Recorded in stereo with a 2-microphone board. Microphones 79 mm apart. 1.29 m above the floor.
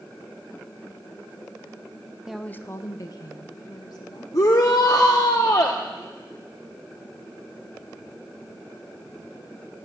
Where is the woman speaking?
10° right (ahead or behind), 0.6 m; by 4.2 s 65° left (ahead or behind), 3 m.